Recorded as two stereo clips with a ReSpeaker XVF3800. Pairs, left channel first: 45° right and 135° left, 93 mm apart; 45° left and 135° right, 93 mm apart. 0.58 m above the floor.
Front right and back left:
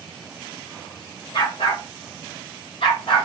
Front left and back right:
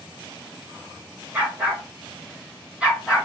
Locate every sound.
1.3 s a dog barking: 65° right, 3 m; by 3.2 s 50° right, 2.5 m